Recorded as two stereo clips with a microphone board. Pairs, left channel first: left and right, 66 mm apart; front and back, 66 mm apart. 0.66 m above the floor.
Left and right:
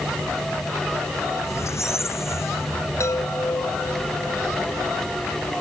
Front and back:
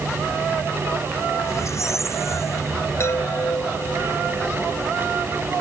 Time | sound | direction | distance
1.4 | a squeak | 45° left | ?
3.0 | a chime | 45° left | ?